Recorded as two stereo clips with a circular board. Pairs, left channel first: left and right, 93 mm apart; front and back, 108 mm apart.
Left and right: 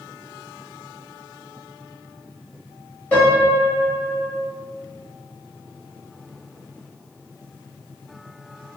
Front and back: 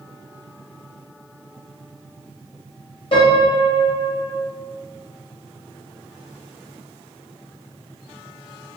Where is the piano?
20° left, 1.1 m.